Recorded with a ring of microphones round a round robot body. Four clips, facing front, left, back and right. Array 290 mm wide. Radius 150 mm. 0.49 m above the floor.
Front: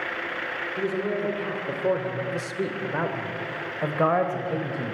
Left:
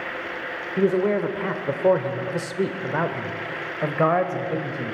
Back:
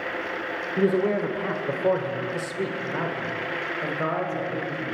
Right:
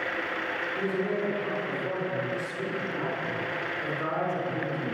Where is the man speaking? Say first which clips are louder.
Left 10 dB, back 6 dB; 120° left, 1.7 m; by 5.0 s 50° left, 2.5 m.